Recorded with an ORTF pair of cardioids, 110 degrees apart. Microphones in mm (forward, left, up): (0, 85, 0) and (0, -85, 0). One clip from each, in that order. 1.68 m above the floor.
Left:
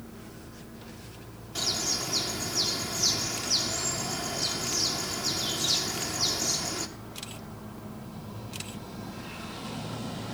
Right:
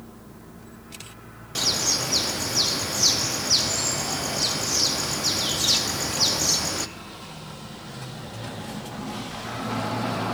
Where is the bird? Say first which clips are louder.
Right 6 dB; 45° right, 1.0 m.